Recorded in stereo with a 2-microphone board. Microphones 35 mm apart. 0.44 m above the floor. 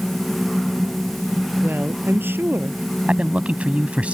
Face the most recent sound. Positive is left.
turn(degrees=-35)  # may be behind; listen again after turning